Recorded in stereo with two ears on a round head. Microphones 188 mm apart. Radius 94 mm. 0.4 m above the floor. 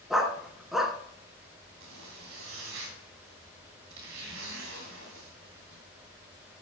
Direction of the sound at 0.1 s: Centre (ahead or behind).